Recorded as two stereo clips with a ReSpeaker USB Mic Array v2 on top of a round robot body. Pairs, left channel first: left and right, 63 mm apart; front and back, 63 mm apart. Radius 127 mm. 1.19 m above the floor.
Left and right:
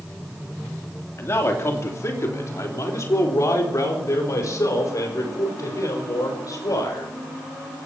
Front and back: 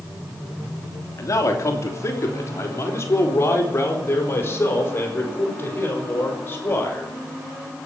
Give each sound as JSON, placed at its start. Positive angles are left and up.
{"t": 1.2, "sound": "a man speaking", "azimuth_deg": 40, "distance_m": 3.0}